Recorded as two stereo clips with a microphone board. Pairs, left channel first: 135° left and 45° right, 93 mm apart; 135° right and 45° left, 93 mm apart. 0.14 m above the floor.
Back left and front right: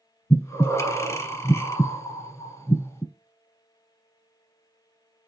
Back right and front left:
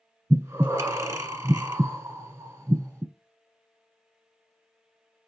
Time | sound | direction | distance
0.3 | breathing | 95° left | 1.2 m